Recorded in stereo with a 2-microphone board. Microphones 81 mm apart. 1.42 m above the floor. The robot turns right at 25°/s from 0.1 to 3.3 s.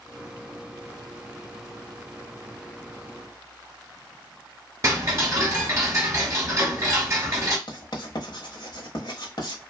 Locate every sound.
4.8 s ticking: 35° right (ahead or behind), 1.1 m
7.7 s writing: 60° left (ahead or behind), 1.0 m